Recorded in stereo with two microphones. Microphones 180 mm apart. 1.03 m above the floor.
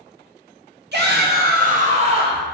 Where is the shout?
65° right (ahead or behind), 0.9 m; by 2.4 s 25° right (ahead or behind), 1.0 m.